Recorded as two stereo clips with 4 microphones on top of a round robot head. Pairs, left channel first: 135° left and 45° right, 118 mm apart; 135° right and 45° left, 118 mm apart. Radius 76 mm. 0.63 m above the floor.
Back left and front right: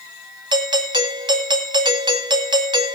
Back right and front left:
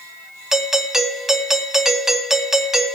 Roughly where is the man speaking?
No man speaking in this recording.